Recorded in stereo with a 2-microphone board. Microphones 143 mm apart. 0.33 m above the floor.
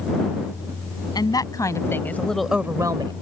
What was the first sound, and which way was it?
A woman speaking, 30° left (ahead or behind).